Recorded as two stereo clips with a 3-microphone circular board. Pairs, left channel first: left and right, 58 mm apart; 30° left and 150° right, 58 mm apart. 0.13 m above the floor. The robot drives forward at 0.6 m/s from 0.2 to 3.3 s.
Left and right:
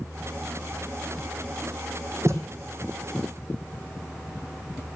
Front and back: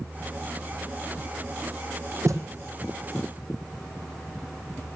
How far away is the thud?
About 1.5 m.